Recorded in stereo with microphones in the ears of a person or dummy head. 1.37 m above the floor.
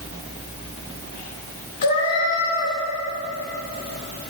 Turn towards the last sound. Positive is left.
turn(degrees=55)  # may be behind; listen again after turning